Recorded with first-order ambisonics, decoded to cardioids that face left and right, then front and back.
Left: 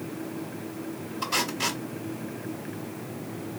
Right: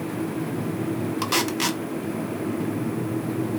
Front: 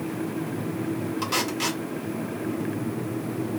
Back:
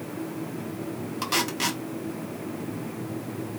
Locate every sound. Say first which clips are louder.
1.2 s tape being pulled: right 2 dB, back 1 dB; 105° right, 0.7 m